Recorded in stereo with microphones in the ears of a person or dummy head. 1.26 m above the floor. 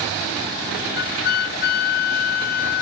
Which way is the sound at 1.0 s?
50° left (ahead or behind).